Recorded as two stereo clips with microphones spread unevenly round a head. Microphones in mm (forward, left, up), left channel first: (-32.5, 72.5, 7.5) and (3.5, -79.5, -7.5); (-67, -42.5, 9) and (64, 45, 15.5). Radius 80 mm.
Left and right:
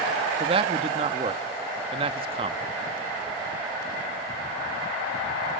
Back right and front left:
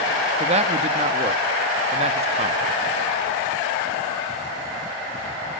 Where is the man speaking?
20° right, 1.1 m.